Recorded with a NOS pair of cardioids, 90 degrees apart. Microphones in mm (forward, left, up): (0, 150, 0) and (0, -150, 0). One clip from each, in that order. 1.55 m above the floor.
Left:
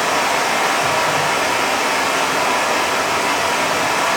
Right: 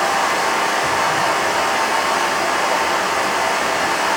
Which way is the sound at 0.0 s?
50° left.